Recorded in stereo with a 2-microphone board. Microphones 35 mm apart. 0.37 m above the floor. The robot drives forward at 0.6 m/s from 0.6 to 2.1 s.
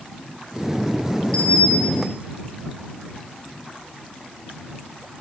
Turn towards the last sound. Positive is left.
turn(degrees=20)  # may be behind; listen again after turning